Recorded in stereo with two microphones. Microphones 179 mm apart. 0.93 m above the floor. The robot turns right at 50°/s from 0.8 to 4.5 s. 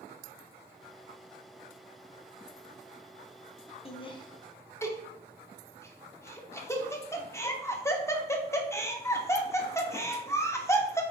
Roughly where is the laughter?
Left.